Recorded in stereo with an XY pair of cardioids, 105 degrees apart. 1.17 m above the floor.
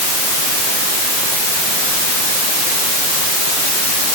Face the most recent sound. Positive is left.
No sound to turn to.